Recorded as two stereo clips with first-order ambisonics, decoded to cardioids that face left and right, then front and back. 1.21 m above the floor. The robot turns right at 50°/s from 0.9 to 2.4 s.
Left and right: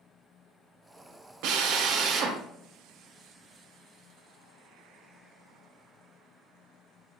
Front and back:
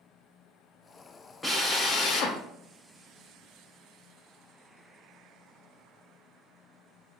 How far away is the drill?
About 0.7 m.